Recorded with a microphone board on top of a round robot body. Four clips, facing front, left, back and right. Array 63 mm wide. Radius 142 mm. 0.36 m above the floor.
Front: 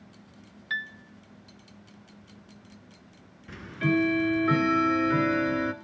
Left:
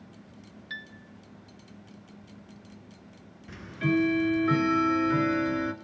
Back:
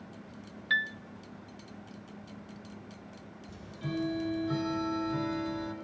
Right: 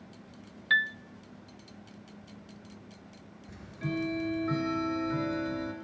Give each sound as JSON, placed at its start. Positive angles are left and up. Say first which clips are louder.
{"t": 0.7, "sound": "a piano", "louder": "right 15 dB, back 3 dB", "azimuth_deg": -100, "distance_m": 0.9}
{"t": 3.5, "sound": "ticking", "louder": "left 9 dB, front 12 dB", "azimuth_deg": 30, "distance_m": 2.0}